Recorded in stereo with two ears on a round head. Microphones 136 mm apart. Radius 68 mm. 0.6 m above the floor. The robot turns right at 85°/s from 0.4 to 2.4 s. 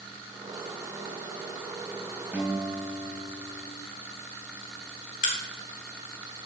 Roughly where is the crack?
Left.